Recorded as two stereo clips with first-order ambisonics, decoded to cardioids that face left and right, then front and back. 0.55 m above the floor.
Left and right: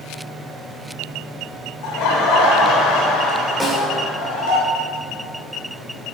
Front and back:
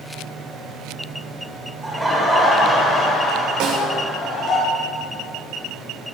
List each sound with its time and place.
1.8 s laughter: 100° left, 2 m; by 4.6 s 70° left, 3.5 m
3.6 s a snare drum: straight behind, 2.5 m